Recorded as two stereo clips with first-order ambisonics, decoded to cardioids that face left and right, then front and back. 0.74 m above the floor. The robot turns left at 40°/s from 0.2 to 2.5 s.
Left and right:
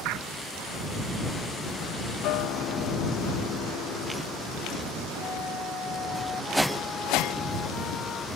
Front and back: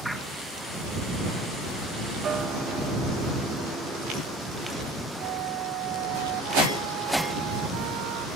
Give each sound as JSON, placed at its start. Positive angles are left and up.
{"t": 2.2, "sound": "a guitar", "azimuth_deg": 120}
{"t": 5.2, "sound": "a flute", "azimuth_deg": 155}